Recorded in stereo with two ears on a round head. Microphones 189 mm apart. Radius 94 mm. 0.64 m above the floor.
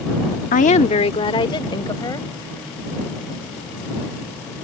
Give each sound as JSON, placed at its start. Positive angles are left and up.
{"t": 0.5, "sound": "a woman speaking", "side_deg": 40}